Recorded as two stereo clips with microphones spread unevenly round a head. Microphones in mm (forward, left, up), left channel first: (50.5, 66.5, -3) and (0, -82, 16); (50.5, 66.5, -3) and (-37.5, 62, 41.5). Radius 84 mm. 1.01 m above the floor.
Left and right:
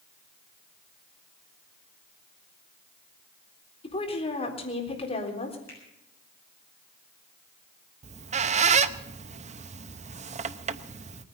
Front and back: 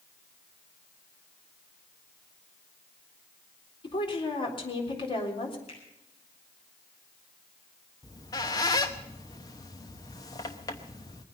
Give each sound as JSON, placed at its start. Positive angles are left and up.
{"t": 3.8, "sound": "a woman speaking", "azimuth_deg": 15, "distance_m": 3.5}
{"t": 5.7, "sound": "a finger snap", "azimuth_deg": -5, "distance_m": 8.0}
{"t": 8.0, "sound": "a squeak", "azimuth_deg": -60, "distance_m": 0.8}